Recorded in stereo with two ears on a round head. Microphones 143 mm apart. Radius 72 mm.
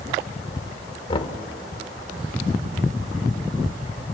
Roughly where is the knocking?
Left.